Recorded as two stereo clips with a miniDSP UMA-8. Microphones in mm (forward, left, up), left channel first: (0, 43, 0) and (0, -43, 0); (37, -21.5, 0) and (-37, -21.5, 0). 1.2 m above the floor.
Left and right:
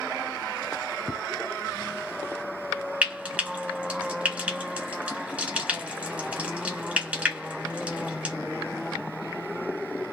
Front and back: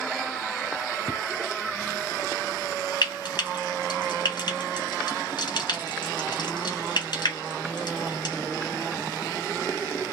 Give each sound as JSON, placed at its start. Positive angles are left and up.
{"t": 1.1, "sound": "footsteps", "azimuth_deg": -140, "distance_m": 1.3}
{"t": 3.0, "sound": "frying", "azimuth_deg": -15, "distance_m": 2.0}